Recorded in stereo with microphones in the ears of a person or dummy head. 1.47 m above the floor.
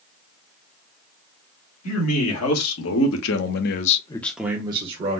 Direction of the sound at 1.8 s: 80° left.